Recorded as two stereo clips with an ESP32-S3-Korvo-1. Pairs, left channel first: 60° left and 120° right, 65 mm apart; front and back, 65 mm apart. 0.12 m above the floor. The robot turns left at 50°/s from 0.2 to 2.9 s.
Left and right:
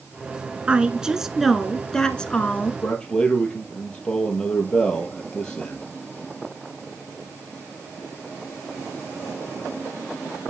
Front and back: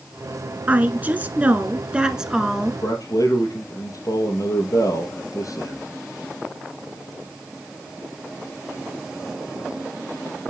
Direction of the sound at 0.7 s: 165° right.